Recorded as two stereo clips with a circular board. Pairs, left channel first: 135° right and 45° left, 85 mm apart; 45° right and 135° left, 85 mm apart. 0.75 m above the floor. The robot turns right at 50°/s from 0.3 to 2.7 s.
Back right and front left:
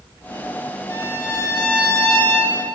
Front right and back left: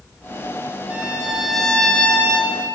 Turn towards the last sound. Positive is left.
turn(degrees=-75)